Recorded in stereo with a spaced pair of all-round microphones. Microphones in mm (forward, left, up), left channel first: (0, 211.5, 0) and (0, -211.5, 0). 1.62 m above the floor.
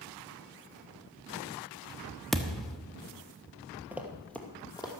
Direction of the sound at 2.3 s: Centre (ahead or behind).